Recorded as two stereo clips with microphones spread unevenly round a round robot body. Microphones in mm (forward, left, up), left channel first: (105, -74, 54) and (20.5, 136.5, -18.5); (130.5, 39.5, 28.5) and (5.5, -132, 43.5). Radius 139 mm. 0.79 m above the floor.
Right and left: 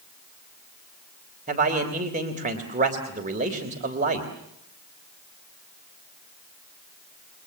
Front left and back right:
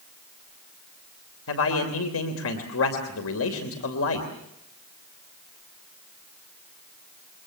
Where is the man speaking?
60° left, 3 m.